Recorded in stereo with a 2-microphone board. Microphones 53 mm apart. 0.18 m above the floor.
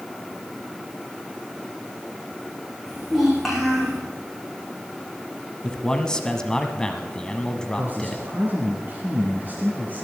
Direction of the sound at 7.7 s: 40° right (ahead or behind).